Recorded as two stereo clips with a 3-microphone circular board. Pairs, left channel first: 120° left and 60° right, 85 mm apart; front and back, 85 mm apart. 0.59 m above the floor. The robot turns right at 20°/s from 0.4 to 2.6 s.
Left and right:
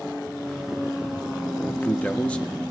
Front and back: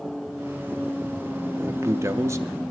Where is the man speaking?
170° left, 0.6 m; by 2.5 s 170° right, 0.6 m.